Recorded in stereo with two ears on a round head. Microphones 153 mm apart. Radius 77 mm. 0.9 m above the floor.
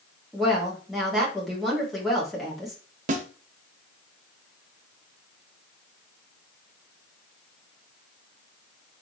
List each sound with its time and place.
0.3 s a woman speaking: centre (ahead or behind), 2 m
3.1 s a snare drum: 45° right (ahead or behind), 0.8 m